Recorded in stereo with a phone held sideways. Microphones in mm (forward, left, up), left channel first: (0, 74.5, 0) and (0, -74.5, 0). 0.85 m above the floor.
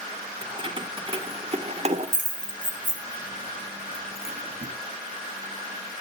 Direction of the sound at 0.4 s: 35° right (ahead or behind).